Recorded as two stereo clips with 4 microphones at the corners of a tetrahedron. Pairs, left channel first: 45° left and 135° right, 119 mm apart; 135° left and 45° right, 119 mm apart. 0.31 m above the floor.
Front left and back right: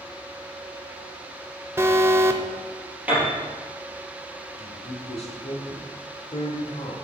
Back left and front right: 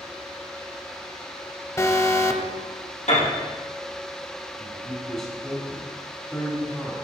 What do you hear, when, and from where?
1.8 s an alarm: 175° left, 0.7 m
3.1 s a piano: 150° left, 3.5 m
4.6 s a man speaking: 45° left, 1.3 m